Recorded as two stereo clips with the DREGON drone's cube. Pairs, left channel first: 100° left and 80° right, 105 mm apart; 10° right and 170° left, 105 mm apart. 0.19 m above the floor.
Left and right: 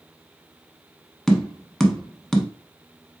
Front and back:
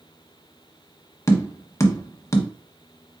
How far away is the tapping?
About 0.8 m.